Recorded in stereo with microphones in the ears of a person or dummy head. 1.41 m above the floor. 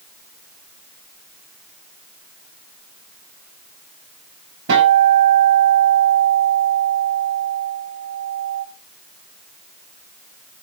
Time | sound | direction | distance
4.7 | a guitar | 65° right (ahead or behind) | 6.5 m